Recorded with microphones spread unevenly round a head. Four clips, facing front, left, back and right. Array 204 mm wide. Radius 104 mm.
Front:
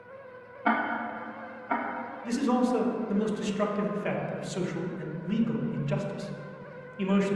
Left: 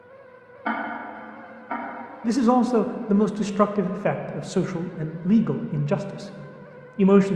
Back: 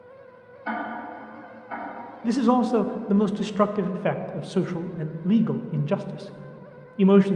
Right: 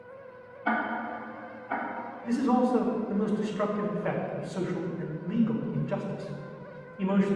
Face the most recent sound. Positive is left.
turn(degrees=125)